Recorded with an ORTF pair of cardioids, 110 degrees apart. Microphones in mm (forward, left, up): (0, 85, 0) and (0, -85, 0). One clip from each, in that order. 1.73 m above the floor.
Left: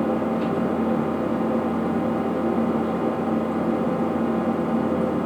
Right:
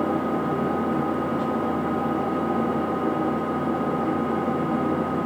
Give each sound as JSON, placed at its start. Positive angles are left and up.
{"t": 0.0, "sound": "an engine running", "azimuth_deg": 15, "distance_m": 2.0}